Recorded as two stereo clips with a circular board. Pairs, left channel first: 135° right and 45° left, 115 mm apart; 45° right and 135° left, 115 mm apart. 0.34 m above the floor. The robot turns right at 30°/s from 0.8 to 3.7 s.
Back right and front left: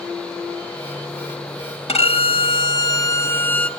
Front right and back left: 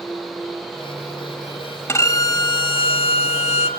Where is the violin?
110° right, 0.8 m; by 3.7 s 55° right, 0.8 m.